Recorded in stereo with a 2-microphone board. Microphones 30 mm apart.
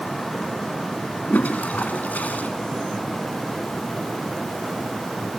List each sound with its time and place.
1.3 s a toilet flushing: 70° left (ahead or behind), 2.5 m